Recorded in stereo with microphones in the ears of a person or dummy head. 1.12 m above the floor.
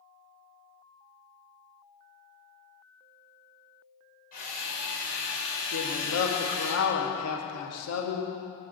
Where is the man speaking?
75° left (ahead or behind), 2 m.